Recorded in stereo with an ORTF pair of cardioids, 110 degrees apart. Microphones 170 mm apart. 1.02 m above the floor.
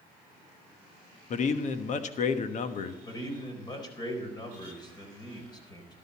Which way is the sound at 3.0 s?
25° left.